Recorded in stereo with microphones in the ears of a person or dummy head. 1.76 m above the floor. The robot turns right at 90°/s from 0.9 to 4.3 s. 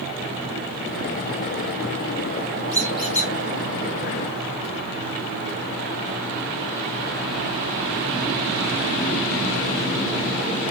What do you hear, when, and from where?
2.7 s a squeak: 30° right, 1.0 m; by 3.3 s 25° left, 1.0 m